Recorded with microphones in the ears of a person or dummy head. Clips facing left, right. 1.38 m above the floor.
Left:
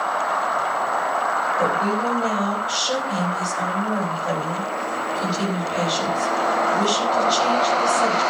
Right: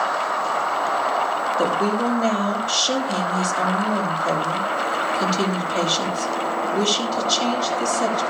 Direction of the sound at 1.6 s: 40° right (ahead or behind).